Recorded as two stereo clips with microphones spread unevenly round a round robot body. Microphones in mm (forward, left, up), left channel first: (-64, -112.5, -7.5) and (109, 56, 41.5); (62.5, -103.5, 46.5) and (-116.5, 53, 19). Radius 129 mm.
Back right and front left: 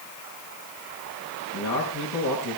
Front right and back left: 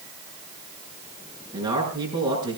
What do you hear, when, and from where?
1.5 s a man speaking: 145° right, 7 m